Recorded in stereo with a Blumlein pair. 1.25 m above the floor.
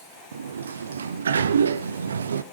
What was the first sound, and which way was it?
A sliding door, 70° right.